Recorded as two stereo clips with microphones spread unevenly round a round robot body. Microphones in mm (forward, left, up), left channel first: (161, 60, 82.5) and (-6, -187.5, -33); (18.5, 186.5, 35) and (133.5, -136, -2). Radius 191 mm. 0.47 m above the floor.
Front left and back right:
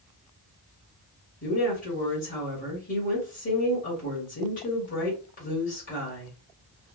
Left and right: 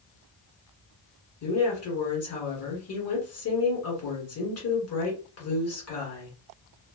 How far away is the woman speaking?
About 1.6 m.